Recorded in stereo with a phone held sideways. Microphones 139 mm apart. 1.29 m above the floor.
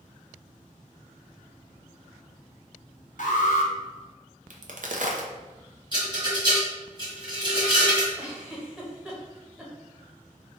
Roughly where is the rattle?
Right.